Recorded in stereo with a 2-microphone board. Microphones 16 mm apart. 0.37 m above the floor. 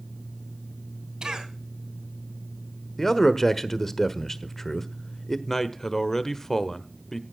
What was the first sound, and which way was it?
A cough, 60° right (ahead or behind).